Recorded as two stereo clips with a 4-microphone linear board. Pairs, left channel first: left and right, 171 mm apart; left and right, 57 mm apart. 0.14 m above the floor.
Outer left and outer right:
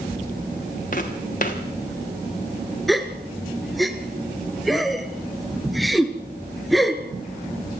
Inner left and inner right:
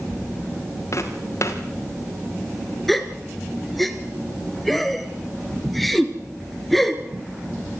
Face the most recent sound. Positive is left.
turn(degrees=0)  # may be behind; listen again after turning